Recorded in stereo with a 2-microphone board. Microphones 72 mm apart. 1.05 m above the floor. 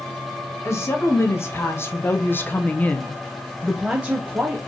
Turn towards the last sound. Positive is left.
turn(degrees=-25)  # may be behind; listen again after turning